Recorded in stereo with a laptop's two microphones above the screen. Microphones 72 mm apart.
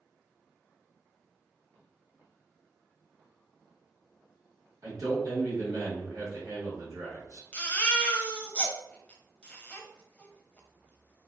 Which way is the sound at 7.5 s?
20° left (ahead or behind).